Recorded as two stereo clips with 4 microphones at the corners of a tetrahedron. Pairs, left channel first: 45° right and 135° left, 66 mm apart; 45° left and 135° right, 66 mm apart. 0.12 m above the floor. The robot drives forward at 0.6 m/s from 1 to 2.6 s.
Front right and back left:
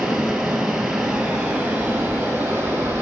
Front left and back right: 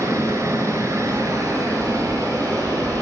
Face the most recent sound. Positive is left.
turn(degrees=-165)